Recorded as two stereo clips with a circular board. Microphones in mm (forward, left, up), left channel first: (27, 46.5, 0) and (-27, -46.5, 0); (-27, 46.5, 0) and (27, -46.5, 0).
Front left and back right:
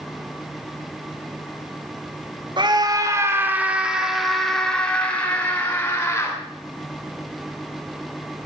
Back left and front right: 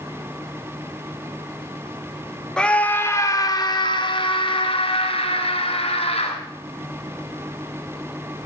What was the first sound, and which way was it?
A scream, 160° right.